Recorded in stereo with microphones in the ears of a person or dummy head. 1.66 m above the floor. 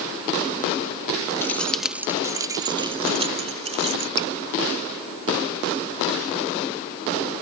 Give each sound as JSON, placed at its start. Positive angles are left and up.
{"t": 1.4, "sound": "keys jangling", "side_deg": 15}
{"t": 4.2, "sound": "dripping", "side_deg": 25}